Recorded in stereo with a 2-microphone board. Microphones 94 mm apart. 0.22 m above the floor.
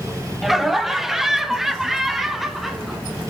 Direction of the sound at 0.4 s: 5° right (ahead or behind).